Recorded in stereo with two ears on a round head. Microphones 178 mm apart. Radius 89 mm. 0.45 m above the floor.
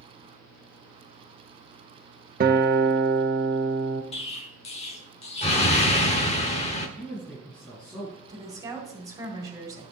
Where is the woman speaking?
20° right (ahead or behind), 2 m.